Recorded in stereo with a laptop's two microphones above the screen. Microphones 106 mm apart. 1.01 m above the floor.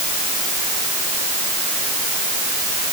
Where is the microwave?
No microwave in this recording.